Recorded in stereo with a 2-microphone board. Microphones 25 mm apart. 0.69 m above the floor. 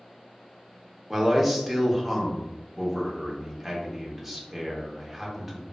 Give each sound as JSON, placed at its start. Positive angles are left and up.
{"t": 1.1, "sound": "a man speaking", "side_deg": 0, "distance_m": 0.7}